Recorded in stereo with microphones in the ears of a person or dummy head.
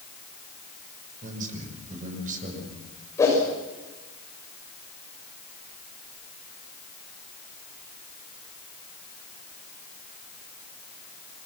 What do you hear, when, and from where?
1.2 s a man speaking: 40° right (ahead or behind), 5.5 m
3.2 s a whoosh: 15° left (ahead or behind), 6.5 m